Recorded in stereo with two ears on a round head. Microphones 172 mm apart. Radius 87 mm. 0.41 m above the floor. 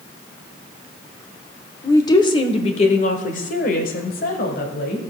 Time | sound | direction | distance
1.8 | a woman speaking | 15° left (ahead or behind) | 1.1 m